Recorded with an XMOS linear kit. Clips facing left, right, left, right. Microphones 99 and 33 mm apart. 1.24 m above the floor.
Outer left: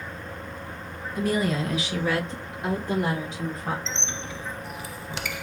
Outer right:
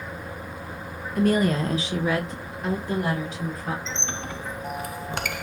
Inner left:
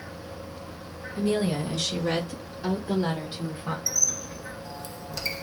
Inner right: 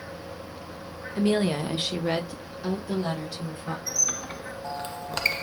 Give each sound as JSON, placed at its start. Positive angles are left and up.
{"t": 1.1, "sound": "a woman speaking", "side_deg": -60, "distance_m": 1.2}
{"t": 3.9, "sound": "a squeak", "side_deg": -55, "distance_m": 0.5}